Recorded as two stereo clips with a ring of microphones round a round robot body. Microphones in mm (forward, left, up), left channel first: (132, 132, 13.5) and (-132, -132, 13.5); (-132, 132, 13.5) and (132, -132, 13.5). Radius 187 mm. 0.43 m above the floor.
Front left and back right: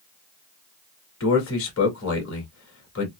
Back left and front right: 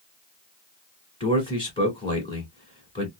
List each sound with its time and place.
1.2 s a man speaking: 65° left, 1.5 m